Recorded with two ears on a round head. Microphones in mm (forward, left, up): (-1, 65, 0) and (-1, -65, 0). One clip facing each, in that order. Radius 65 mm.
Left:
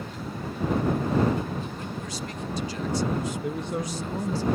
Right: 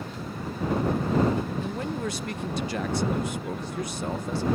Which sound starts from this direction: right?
A man speaking, at 1.6 s.